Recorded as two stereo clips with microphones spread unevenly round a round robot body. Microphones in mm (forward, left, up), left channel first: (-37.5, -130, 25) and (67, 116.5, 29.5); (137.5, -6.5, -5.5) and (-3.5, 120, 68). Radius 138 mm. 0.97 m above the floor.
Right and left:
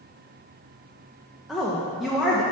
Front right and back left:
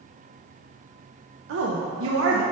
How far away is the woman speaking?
About 0.5 m.